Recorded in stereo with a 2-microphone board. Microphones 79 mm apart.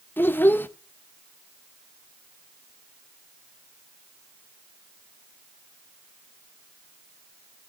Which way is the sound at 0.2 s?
25° left (ahead or behind).